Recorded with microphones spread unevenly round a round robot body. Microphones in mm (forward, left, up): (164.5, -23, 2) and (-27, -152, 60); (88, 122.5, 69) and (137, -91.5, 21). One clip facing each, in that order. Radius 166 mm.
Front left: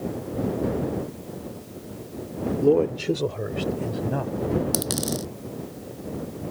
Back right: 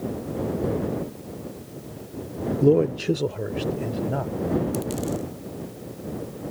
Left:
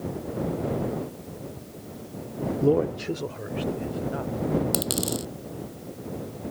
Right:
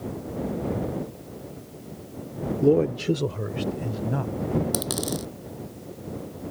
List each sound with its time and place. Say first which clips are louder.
2.6 s a man speaking: back right 1 dB, right 3 dB; 75° right; by 4.6 s 50° right
4.7 s a dropped coin: back right 1 dB, even; 45° left